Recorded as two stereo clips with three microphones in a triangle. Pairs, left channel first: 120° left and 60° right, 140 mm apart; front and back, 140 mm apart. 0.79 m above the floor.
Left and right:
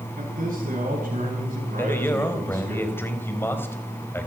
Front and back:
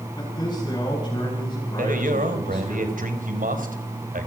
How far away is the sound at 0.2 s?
About 7.5 m.